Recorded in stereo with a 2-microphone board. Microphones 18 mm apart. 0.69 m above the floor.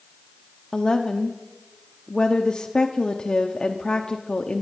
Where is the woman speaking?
50° left (ahead or behind), 0.9 m.